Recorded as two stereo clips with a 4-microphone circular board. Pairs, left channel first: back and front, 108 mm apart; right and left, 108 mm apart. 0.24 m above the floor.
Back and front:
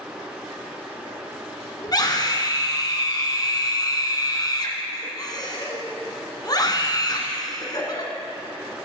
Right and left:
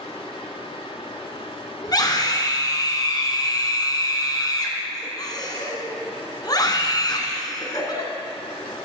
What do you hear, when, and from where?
1.8 s a scream: 135° right, 2 m